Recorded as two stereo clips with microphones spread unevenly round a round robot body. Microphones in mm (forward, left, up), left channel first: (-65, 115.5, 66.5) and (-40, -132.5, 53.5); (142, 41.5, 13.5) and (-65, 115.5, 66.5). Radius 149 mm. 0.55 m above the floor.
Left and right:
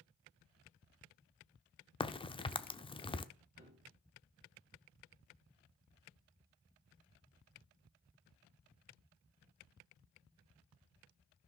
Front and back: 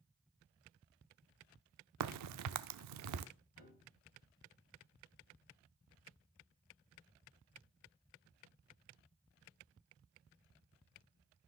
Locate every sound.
2.0 s a crack: 170° left, 0.7 m
3.6 s a piano: 35° right, 3.5 m